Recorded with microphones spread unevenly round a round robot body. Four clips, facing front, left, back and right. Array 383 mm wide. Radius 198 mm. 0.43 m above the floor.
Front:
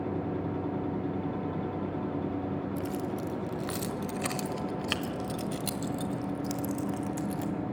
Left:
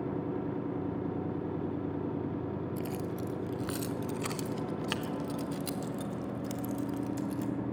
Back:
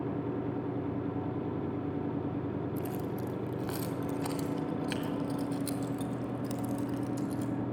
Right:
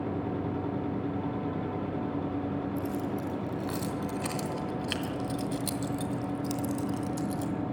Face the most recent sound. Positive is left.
turn(degrees=-20)